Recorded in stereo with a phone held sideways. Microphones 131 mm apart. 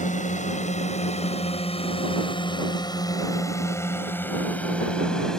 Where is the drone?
70° left (ahead or behind); by 5.4 s 5° left (ahead or behind).